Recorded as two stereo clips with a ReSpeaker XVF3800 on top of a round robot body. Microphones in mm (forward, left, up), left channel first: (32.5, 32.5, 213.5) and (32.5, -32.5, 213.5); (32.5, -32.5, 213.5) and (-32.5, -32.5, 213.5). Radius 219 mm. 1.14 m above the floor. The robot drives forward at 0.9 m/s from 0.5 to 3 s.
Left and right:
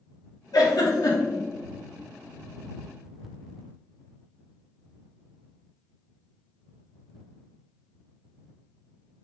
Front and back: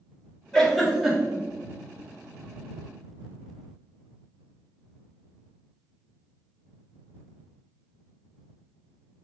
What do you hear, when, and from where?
0.5 s a giggle: 80° left, 2.5 m; by 1.4 s 100° left, 2.5 m